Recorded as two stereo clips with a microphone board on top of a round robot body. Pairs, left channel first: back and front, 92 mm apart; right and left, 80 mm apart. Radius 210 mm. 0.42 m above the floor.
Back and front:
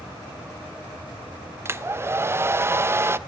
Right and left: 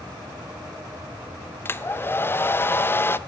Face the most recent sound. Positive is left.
turn(degrees=-45)